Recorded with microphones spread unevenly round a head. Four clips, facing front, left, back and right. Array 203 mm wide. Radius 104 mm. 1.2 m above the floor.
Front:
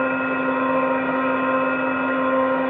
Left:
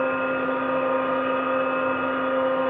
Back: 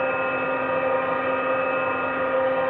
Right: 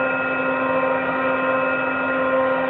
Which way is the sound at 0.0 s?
50° right.